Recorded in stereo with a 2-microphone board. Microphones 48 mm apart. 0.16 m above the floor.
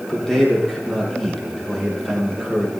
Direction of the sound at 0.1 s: 10° left (ahead or behind).